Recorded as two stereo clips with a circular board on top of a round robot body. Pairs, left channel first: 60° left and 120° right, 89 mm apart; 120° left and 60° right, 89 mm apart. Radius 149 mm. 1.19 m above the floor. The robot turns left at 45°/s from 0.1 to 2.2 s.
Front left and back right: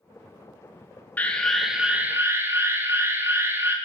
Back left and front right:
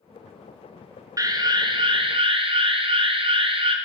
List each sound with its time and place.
1.2 s an alarm: 10° right, 1.5 m; by 3.8 s 55° right, 1.5 m